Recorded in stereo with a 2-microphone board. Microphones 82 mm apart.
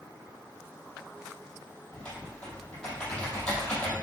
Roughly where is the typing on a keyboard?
Centre.